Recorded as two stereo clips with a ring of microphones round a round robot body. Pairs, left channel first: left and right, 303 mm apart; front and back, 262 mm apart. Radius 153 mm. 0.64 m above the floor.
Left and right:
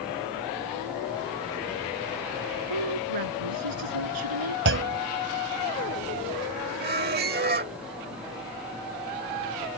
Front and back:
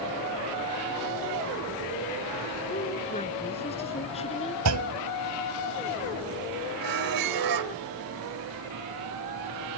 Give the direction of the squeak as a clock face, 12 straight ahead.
5 o'clock.